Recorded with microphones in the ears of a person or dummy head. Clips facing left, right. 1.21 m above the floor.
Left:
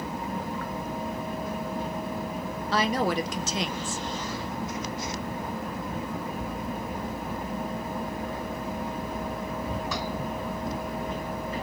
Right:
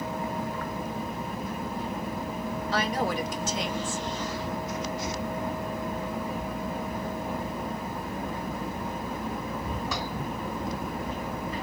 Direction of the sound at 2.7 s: 60° left (ahead or behind).